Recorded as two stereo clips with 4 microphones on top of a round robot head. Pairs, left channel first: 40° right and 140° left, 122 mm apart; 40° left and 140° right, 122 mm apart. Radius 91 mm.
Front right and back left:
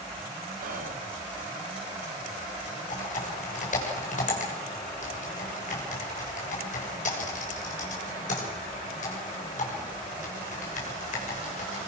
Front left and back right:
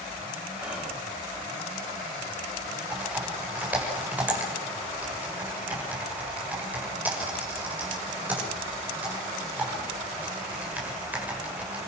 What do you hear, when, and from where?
0.6 s whispering: 135° left, 3 m
2.9 s typing on a keyboard: 65° right, 6.5 m